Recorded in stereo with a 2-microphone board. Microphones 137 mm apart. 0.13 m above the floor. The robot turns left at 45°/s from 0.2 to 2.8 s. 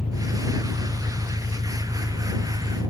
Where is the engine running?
55° left; by 2.9 s 65° right.